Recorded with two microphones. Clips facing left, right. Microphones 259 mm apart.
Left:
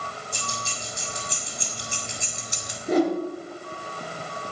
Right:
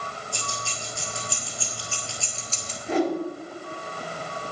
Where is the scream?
I don't hear a scream.